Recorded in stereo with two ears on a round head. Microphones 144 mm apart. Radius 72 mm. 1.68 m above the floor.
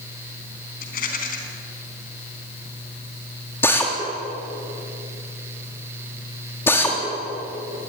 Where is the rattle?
55° left (ahead or behind), 4 m.